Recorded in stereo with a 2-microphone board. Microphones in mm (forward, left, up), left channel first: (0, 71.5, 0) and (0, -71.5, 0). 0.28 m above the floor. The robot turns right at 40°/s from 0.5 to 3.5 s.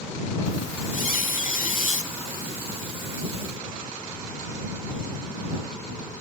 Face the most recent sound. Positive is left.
turn(degrees=175)